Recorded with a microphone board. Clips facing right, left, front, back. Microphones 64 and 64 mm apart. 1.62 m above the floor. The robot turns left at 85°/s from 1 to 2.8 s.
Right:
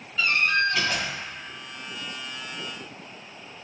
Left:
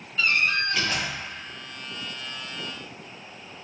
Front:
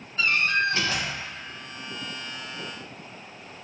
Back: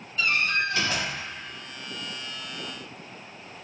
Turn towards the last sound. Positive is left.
turn(degrees=-160)